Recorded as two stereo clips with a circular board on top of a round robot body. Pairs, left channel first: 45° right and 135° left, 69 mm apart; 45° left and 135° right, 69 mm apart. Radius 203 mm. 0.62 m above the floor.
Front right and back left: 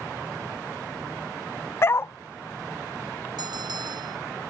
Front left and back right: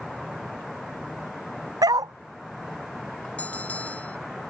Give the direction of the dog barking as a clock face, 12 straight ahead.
3 o'clock.